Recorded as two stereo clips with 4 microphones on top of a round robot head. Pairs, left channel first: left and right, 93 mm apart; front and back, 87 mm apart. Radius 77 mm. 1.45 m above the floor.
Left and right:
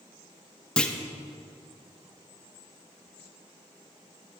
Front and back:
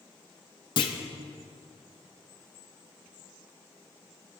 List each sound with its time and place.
0.8 s a clunk: 15° left, 0.9 m